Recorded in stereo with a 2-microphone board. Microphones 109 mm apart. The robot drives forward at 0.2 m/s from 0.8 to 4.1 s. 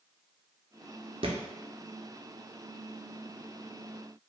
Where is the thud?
65° right (ahead or behind), 0.6 m; by 1.4 s 60° right (ahead or behind), 0.6 m.